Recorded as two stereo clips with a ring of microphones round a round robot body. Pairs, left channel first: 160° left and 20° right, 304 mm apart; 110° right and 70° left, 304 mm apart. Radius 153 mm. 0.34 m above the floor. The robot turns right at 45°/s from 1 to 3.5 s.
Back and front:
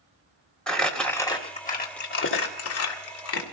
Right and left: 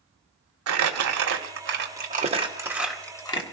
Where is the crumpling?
70° left, 1.5 m; by 3.5 s 175° right, 1.5 m.